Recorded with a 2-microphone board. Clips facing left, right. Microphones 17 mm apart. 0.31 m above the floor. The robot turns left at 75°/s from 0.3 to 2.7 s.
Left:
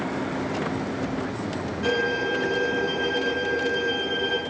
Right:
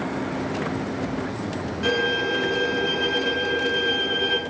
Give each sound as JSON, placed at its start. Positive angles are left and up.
{"t": 1.8, "sound": "a violin", "azimuth_deg": -25, "distance_m": 1.7}